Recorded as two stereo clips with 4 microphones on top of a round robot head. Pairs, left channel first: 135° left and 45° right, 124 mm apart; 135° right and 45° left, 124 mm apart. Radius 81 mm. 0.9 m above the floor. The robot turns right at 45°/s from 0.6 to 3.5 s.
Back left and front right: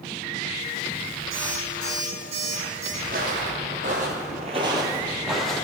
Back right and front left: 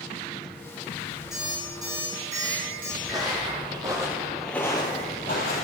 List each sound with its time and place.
1.3 s an alarm clock: 45° right, 3.5 m; by 2.9 s 30° left, 3.5 m
3.0 s footsteps: 25° right, 2.0 m; by 5.6 s 140° right, 1.3 m